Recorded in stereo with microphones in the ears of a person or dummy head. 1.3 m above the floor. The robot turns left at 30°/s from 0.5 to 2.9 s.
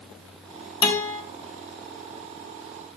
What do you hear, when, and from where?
0.8 s a guitar: 25° left (ahead or behind), 3 m; by 1.2 s 15° left (ahead or behind), 3 m